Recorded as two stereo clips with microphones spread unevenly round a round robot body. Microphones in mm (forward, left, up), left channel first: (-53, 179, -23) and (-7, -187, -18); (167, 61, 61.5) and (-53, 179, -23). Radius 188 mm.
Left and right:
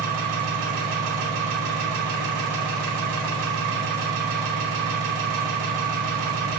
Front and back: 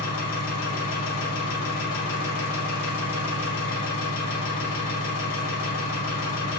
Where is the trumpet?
I don't hear a trumpet.